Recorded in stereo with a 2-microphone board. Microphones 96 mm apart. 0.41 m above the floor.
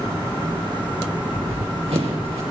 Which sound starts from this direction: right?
Running footsteps, at 1.3 s.